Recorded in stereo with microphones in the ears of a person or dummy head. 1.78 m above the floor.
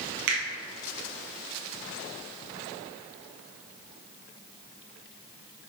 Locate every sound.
0.3 s a finger snap: 55° right (ahead or behind), 1.8 m